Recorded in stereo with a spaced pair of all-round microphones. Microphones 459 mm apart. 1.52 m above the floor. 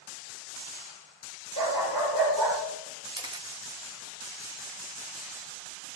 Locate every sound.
1.6 s a dog barking: 65° right (ahead or behind), 7 m
3.1 s a camera shutter: 10° right (ahead or behind), 1.0 m